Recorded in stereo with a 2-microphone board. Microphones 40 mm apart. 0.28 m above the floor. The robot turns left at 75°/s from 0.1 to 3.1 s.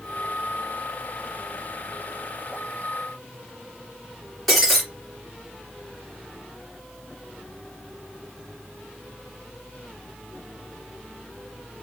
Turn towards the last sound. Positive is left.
turn(degrees=5)  # may be behind; listen again after turning